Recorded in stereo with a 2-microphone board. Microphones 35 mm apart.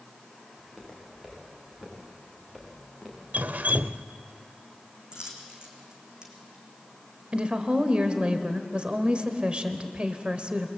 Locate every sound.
0.6 s footsteps: 15° right (ahead or behind), 9 m; by 3.2 s 10° right (ahead or behind), 5.5 m
3.3 s dripping: 60° right (ahead or behind), 0.5 m
5.1 s a dropped coin: 25° right (ahead or behind), 3 m
7.3 s a woman speaking: 35° right (ahead or behind), 1.4 m